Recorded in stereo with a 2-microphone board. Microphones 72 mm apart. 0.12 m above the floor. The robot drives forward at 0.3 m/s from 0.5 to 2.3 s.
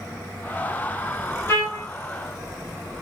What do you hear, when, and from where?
1.5 s a trumpet: 35° left (ahead or behind), 2 m